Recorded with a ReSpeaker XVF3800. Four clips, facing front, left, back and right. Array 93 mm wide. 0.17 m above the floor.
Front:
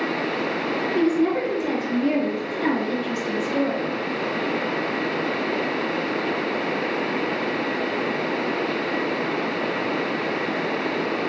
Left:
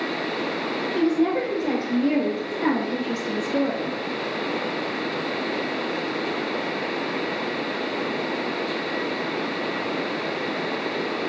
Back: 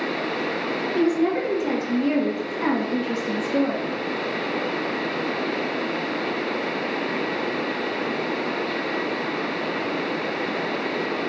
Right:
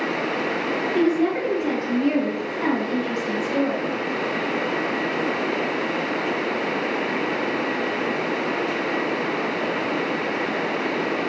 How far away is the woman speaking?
About 1.9 m.